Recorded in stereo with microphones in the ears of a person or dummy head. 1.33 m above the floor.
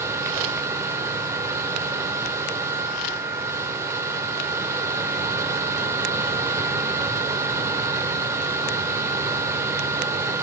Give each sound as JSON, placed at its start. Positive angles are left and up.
{"t": 0.0, "sound": "a machine running", "side_deg": -15, "distance_m": 1.6}